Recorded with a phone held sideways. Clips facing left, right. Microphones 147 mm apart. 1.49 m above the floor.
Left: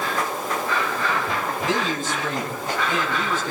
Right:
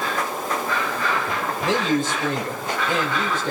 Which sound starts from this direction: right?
A man speaking, at 1.6 s.